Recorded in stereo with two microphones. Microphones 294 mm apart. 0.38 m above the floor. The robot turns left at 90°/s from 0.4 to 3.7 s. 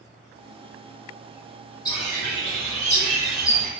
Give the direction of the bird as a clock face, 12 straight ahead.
7 o'clock.